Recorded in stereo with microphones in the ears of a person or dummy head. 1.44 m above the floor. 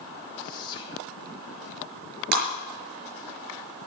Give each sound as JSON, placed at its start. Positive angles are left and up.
{"t": 0.4, "sound": "whispering", "side_deg": 35, "distance_m": 2.5}
{"t": 2.3, "sound": "breaking glass", "side_deg": -65, "distance_m": 5.5}